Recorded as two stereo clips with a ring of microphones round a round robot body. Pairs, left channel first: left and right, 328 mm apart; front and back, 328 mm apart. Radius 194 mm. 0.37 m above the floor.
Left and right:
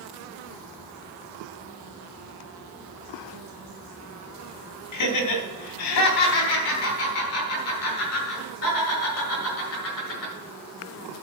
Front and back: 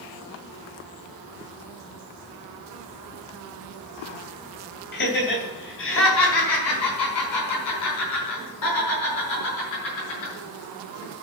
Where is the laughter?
60° left, 2.5 m; by 10.3 s 35° left, 7 m.